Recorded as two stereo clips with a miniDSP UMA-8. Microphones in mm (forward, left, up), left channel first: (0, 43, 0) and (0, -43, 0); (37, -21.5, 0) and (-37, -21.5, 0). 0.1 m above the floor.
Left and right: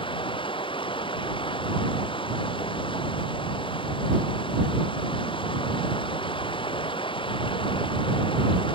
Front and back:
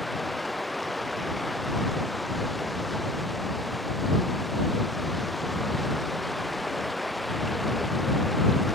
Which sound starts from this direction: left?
Running water, at 0.0 s.